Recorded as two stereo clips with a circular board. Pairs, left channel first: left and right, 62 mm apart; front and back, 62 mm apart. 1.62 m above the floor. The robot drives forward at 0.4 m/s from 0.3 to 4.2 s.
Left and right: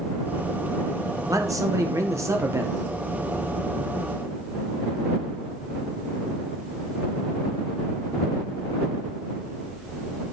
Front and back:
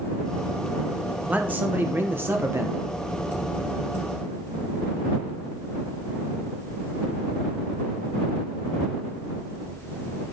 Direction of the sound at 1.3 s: 115° right.